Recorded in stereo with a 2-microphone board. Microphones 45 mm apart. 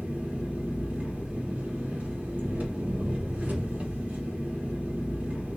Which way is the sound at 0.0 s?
35° right (ahead or behind).